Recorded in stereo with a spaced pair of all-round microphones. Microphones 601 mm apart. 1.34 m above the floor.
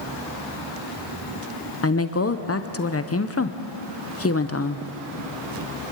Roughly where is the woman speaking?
Left.